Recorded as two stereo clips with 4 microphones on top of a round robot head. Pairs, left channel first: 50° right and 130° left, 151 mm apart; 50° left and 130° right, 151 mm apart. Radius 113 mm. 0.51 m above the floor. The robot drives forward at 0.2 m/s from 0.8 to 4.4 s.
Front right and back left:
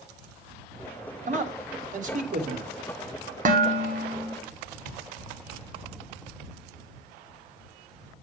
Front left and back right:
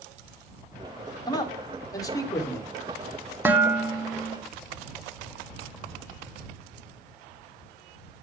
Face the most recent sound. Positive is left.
turn(degrees=160)